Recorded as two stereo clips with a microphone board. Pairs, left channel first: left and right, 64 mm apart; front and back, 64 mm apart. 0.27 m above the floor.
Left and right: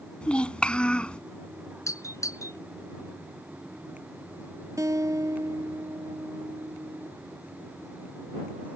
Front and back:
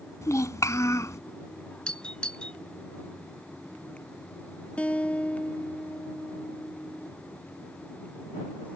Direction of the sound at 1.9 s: 75° left.